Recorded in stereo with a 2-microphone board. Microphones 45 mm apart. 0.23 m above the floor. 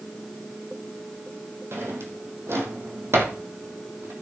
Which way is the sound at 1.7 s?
70° right (ahead or behind).